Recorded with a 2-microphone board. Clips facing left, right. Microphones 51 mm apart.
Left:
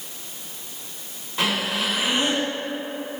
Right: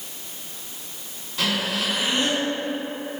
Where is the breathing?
30° left (ahead or behind), 1.5 m.